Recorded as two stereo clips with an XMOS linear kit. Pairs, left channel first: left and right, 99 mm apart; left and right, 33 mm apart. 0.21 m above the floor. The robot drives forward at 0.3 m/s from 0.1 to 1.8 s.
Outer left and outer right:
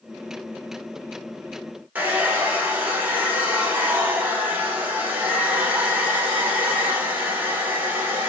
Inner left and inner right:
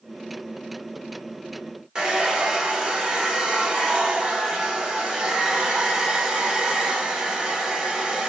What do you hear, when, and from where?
1.9 s a hair dryer: 15° right (ahead or behind), 0.6 m